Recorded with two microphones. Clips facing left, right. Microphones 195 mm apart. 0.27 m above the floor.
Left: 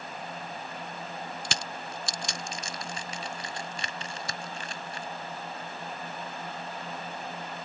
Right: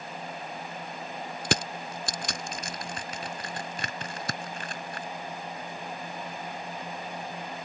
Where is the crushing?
60° right (ahead or behind).